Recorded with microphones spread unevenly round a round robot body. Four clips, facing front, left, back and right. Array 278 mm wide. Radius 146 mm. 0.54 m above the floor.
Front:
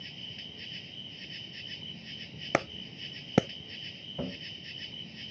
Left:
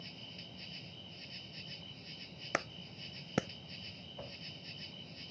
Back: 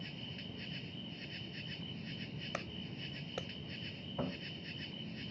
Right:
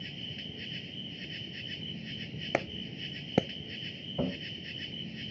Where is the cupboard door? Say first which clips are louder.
Right 17 dB, front 3 dB; 90° right.